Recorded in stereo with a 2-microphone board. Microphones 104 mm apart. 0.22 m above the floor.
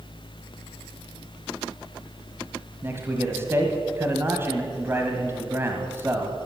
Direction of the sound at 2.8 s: 25° right (ahead or behind).